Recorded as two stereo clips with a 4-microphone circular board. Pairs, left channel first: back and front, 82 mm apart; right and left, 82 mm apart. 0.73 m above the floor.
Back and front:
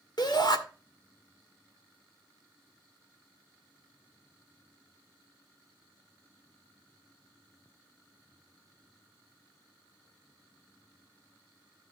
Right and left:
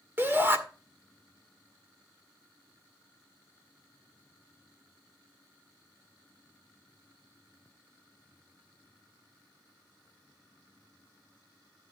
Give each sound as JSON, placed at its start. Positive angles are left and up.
{"t": 0.2, "sound": "a shout", "azimuth_deg": 150, "distance_m": 1.8}